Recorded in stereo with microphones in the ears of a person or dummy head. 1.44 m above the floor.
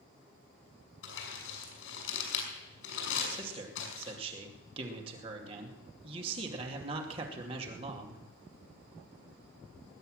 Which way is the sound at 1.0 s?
75° left (ahead or behind).